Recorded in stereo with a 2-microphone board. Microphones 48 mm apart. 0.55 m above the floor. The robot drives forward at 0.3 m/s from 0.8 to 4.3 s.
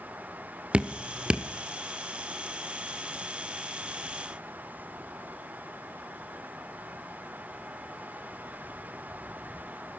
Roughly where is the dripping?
Right.